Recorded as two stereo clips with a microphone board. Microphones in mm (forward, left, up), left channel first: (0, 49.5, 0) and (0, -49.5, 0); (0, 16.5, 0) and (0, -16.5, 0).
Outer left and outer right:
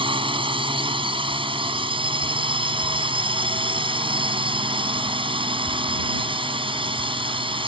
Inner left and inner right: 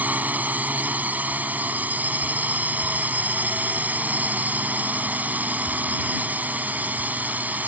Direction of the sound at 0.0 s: 60° right (ahead or behind).